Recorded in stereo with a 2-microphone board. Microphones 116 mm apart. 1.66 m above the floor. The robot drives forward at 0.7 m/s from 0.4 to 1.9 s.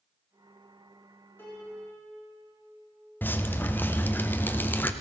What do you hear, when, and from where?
1.4 s a piano: 20° left (ahead or behind), 3.5 m
3.2 s dripping: 15° left (ahead or behind), 0.5 m